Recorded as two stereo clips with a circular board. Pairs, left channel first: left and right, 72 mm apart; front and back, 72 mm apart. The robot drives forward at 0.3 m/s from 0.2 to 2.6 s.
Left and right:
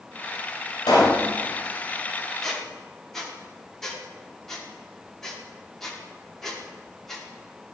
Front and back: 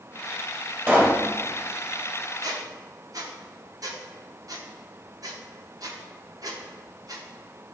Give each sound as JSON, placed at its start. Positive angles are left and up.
{"t": 0.9, "sound": "a pop", "azimuth_deg": 115, "distance_m": 1.7}
{"t": 2.4, "sound": "a squeak", "azimuth_deg": 175, "distance_m": 0.8}